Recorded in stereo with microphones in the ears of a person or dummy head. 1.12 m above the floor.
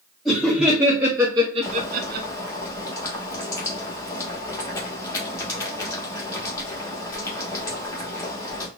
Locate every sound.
0.2 s laughter: centre (ahead or behind), 1.1 m; by 2.3 s 55° right (ahead or behind), 0.6 m
1.6 s boiling: 20° left (ahead or behind), 1.0 m